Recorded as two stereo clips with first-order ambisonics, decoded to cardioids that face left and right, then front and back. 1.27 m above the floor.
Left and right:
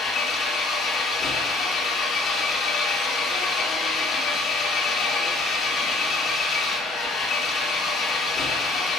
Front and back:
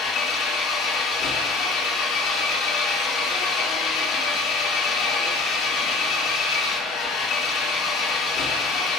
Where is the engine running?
30° left, 1.8 m.